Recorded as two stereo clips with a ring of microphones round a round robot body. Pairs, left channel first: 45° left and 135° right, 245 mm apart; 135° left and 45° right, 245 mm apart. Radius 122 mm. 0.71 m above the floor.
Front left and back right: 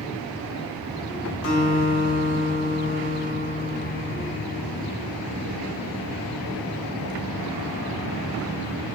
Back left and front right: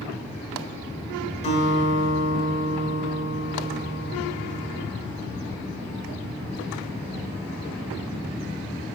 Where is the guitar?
70° left, 2 m.